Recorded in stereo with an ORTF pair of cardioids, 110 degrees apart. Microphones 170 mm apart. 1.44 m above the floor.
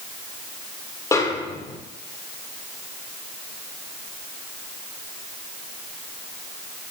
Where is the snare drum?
20° left, 2 m.